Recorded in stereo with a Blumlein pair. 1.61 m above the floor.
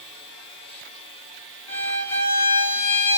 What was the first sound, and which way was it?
A violin, 60° left.